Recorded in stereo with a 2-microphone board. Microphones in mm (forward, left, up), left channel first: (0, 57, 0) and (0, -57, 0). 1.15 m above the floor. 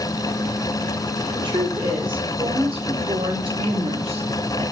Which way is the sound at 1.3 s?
40° right (ahead or behind).